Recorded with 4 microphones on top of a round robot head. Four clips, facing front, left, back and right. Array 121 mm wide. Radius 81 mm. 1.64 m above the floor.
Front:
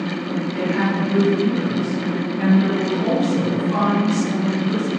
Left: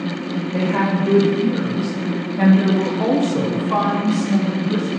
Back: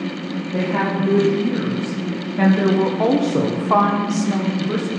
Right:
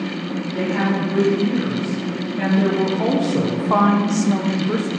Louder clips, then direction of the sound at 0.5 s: Left 1 dB, back 2 dB; 140° left.